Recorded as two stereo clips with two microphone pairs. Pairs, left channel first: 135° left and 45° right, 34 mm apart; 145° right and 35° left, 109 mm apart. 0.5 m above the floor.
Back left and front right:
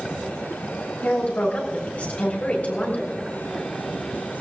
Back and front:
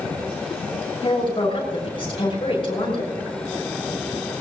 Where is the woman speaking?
175° left, 7 m.